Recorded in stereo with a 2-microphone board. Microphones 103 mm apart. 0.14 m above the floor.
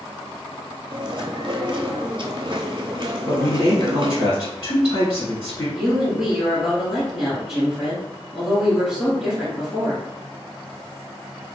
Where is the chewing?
50° right (ahead or behind), 0.6 m.